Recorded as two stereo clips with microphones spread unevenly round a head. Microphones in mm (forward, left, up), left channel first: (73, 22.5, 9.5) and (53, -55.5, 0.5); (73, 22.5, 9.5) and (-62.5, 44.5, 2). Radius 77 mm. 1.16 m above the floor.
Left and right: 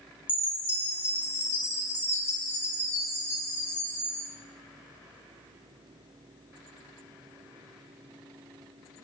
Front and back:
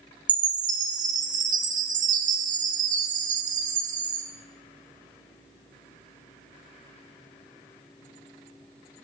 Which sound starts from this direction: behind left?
A chime, at 0.3 s.